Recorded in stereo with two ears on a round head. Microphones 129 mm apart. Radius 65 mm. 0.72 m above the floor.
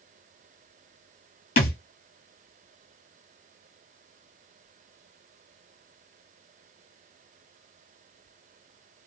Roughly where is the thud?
Left.